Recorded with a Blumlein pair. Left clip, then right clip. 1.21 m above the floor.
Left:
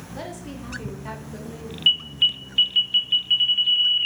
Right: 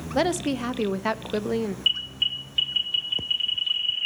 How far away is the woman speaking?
About 0.8 m.